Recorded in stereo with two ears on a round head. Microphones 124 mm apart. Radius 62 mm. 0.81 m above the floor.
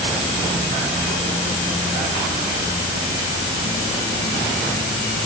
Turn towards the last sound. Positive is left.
No sound to turn to.